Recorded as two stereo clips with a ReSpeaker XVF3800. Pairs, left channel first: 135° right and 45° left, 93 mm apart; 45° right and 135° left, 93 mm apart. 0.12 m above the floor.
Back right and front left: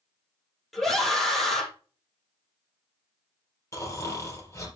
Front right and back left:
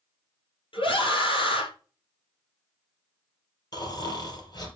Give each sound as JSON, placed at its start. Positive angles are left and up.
{"t": 0.7, "sound": "a scream", "azimuth_deg": -45, "distance_m": 3.0}
{"t": 3.7, "sound": "snoring", "azimuth_deg": -85, "distance_m": 3.0}